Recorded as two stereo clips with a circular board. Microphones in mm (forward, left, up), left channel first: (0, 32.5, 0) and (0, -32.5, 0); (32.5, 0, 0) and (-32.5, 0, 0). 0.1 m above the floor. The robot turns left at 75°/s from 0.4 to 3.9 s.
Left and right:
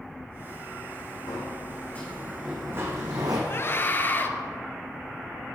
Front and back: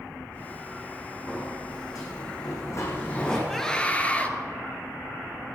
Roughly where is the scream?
Left.